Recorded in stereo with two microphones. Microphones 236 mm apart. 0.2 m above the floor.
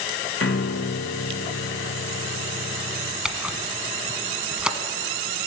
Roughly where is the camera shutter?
Centre.